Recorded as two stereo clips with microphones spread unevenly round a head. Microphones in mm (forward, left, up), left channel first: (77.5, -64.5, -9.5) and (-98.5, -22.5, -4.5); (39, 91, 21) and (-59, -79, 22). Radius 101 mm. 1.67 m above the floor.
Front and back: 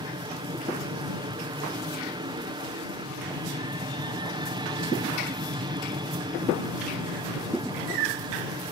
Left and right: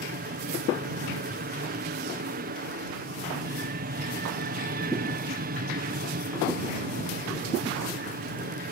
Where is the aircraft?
135° right.